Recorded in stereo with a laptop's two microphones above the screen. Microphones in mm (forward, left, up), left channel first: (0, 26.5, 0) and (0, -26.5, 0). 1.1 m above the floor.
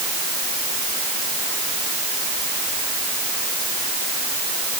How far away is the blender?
No blender in this recording.